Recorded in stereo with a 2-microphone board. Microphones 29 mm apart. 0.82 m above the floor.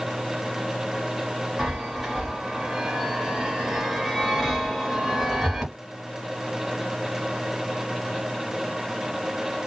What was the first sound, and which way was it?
A chime, 5° right (ahead or behind).